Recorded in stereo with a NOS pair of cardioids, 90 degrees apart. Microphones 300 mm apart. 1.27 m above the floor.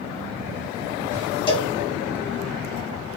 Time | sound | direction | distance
1.5 | a cowbell | 15° left | 0.9 m